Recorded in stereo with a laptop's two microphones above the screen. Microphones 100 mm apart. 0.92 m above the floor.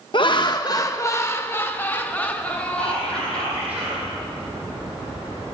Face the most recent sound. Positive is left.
turn(degrees=-75)  # may be behind; listen again after turning